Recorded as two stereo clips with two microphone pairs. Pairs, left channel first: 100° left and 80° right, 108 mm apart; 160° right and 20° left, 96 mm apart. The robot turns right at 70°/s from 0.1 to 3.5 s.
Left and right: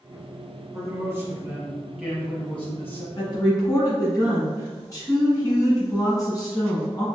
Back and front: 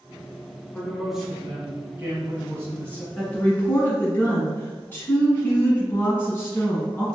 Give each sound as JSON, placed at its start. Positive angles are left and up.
{"t": 0.7, "sound": "a man speaking", "azimuth_deg": -95, "distance_m": 1.2}
{"t": 3.2, "sound": "a woman speaking", "azimuth_deg": 115, "distance_m": 1.9}